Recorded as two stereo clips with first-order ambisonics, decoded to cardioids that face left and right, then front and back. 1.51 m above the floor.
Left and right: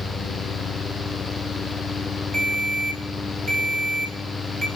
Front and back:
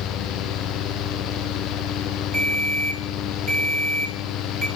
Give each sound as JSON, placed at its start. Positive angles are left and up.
{"t": 2.3, "sound": "a ringtone", "azimuth_deg": -130, "distance_m": 1.2}